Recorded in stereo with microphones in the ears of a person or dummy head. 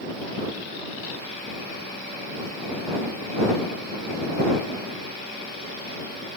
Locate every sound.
Only background noise.